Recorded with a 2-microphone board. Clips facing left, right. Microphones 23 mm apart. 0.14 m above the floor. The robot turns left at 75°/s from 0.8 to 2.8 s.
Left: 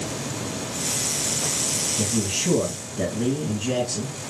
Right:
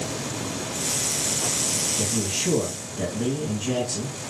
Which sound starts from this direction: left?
A man speaking, at 2.0 s.